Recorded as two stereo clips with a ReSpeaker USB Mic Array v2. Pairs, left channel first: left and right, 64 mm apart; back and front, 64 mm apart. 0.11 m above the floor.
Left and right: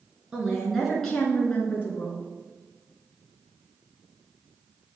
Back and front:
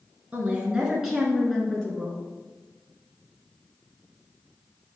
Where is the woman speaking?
35° right, 1.3 m; by 2.2 s 110° left, 1.5 m.